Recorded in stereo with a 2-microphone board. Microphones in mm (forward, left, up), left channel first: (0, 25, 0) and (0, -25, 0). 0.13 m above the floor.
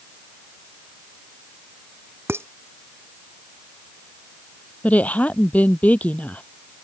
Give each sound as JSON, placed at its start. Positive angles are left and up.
{"t": 2.3, "sound": "dishes clattering", "side_deg": -55}
{"t": 4.8, "sound": "a woman speaking", "side_deg": 30}